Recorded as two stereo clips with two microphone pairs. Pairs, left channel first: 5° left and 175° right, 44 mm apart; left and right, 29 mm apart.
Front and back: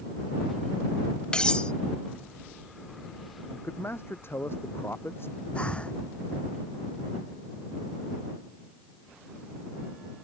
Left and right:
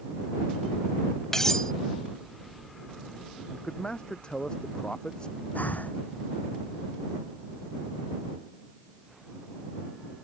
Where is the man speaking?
30° left.